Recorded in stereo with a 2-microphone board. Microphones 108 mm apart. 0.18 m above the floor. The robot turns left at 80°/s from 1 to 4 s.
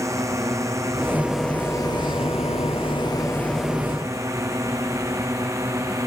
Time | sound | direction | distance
0.0 | a drone | 30° right (ahead or behind) | ?